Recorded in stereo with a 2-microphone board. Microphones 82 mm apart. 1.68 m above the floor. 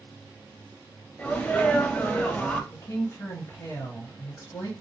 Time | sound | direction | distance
1.2 | a sneeze | 15° left (ahead or behind) | 0.6 m
2.7 | a woman speaking | 45° left (ahead or behind) | 1.3 m